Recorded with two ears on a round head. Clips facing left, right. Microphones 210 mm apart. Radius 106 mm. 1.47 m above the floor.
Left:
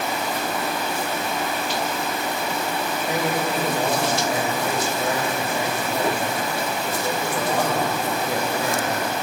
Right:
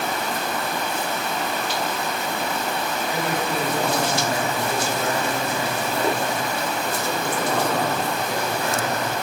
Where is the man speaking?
15° left (ahead or behind), 4.5 m.